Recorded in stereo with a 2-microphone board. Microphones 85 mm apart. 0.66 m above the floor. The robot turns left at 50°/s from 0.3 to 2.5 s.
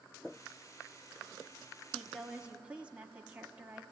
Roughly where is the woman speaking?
Centre.